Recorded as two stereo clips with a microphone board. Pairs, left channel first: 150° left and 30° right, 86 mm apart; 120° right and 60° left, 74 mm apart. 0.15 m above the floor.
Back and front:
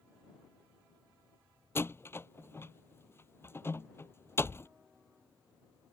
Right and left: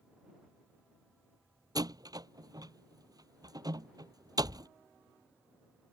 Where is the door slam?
90° left.